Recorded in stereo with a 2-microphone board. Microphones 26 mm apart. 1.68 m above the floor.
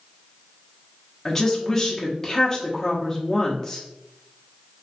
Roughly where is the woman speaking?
Centre.